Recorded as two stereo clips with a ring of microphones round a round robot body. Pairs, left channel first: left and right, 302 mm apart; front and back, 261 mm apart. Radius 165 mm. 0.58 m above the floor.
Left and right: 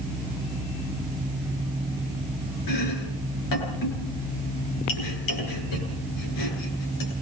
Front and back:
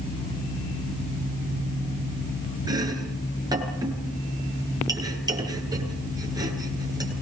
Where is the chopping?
105° left, 9.5 m.